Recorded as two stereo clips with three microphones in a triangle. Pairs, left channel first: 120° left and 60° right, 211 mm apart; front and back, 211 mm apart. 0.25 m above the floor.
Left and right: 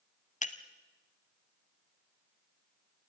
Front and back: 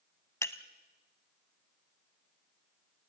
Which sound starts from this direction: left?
Breaking glass, at 0.4 s.